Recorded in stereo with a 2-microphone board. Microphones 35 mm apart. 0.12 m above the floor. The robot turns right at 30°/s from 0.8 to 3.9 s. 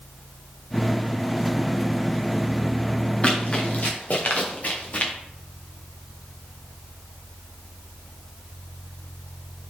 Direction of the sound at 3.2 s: 30° left (ahead or behind).